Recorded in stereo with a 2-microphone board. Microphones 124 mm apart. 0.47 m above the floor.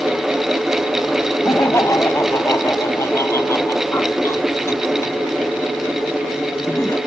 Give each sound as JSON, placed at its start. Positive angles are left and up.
{"t": 1.4, "sound": "laughter", "side_deg": 25}